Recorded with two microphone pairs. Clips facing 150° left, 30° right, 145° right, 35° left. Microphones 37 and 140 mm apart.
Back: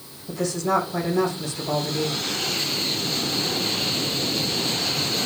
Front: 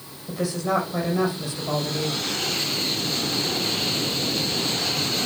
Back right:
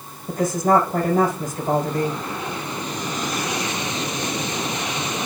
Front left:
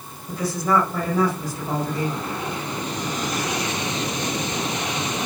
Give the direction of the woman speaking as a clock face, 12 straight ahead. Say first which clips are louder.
Back 1 dB, back right 4 dB; 4 o'clock.